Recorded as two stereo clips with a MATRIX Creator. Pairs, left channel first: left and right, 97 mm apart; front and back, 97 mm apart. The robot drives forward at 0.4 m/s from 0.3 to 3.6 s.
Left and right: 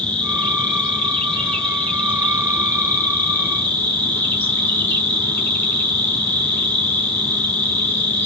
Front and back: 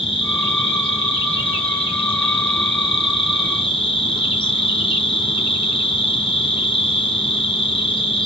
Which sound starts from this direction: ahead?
An insect, at 0.0 s.